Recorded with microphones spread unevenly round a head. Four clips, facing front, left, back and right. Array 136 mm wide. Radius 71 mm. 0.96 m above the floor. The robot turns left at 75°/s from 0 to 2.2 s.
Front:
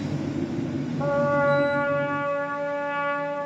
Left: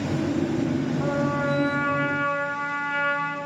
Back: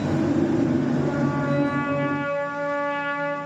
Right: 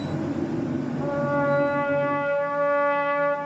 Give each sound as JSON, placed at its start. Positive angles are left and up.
{"t": 1.0, "sound": "a trumpet", "azimuth_deg": 0, "distance_m": 5.0}